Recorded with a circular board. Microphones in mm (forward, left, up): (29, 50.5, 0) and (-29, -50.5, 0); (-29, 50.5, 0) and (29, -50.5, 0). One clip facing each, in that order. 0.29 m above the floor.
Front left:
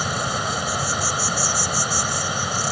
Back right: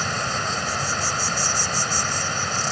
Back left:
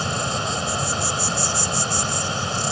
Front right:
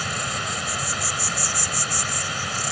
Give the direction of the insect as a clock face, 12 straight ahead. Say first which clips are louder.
Front left 2 dB, back left 4 dB; 8 o'clock.